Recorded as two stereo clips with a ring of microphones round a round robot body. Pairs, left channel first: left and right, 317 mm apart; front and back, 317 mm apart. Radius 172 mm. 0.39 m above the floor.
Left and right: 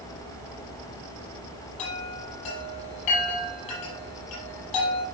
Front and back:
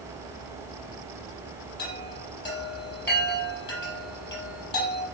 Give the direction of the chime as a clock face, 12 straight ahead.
10 o'clock.